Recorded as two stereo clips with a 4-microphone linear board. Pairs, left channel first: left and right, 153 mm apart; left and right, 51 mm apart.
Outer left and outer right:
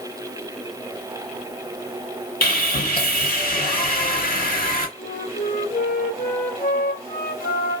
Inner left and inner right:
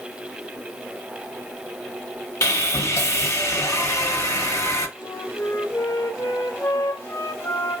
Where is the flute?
70° left (ahead or behind), 1.1 m.